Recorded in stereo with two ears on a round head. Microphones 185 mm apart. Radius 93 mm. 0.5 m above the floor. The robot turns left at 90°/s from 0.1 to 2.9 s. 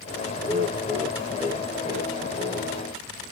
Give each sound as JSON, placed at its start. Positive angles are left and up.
{"t": 0.4, "sound": "laughter", "azimuth_deg": 55, "distance_m": 2.5}